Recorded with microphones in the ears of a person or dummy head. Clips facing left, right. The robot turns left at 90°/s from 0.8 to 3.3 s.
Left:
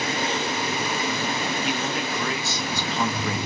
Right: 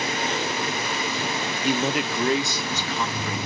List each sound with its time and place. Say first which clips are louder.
1.6 s a man speaking: right 3 dB; 90° right, 0.5 m; by 3.4 s 120° left, 0.5 m